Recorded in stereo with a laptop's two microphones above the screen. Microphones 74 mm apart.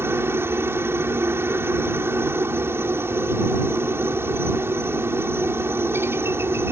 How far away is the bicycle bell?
No bicycle bell in this recording.